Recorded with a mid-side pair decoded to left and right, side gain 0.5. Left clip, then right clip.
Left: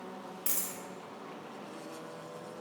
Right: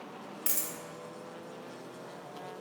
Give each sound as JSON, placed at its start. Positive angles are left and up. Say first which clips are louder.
{"t": 0.5, "sound": "a dropped coin", "louder": "right 2 dB", "azimuth_deg": -25, "distance_m": 0.9}